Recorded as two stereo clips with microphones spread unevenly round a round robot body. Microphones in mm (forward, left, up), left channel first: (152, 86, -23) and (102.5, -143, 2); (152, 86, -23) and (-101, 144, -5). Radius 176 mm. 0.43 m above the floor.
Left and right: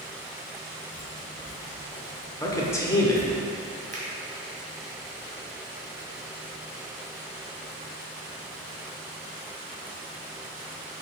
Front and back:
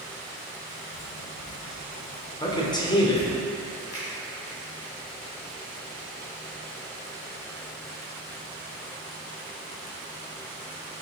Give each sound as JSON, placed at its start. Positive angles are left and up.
{"t": 0.9, "sound": "footsteps", "azimuth_deg": 0, "distance_m": 2.0}
{"t": 2.4, "sound": "a man speaking", "azimuth_deg": 30, "distance_m": 1.0}
{"t": 3.9, "sound": "a finger snap", "azimuth_deg": -60, "distance_m": 2.0}